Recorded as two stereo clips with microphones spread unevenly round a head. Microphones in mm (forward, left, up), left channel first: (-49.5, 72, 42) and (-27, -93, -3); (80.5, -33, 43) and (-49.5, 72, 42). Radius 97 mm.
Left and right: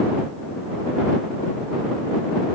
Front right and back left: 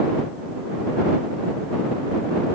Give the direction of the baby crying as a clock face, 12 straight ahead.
I don't hear a baby crying.